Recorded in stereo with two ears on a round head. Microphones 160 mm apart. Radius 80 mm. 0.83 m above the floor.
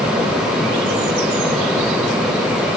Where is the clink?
I don't hear a clink.